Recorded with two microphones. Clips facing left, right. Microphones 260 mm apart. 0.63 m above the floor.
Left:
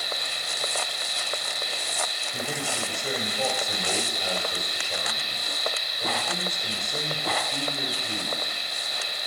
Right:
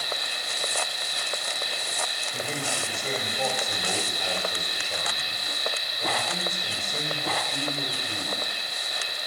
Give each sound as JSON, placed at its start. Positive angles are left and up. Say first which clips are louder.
{"t": 0.0, "sound": "an insect", "louder": "right 1 dB", "side_deg": -60, "distance_m": 5.5}
{"t": 2.3, "sound": "a man speaking", "louder": "left 1 dB", "side_deg": 10, "distance_m": 3.5}